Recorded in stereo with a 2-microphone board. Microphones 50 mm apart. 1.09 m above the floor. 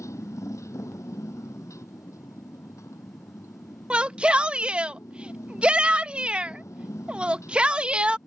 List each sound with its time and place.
0.0 s a motorcycle: 90° left
3.9 s a shout: 20° right (ahead or behind)